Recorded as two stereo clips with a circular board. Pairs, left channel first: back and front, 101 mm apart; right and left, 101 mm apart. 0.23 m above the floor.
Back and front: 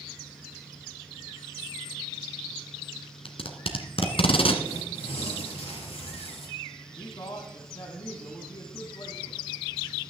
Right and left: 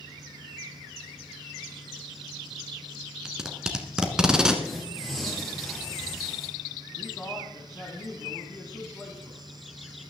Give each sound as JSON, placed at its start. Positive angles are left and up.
{"t": 3.2, "sound": "tape being pulled", "azimuth_deg": 175, "distance_m": 1.8}
{"t": 4.6, "sound": "tearing paper", "azimuth_deg": 180, "distance_m": 4.0}
{"t": 7.0, "sound": "a man speaking", "azimuth_deg": -160, "distance_m": 2.0}